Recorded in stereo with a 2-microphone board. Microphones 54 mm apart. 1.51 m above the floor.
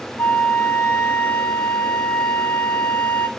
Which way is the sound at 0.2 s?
35° left (ahead or behind).